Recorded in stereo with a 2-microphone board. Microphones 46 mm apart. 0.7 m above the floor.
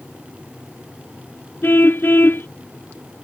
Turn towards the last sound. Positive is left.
turn(degrees=45)  # may be behind; listen again after turning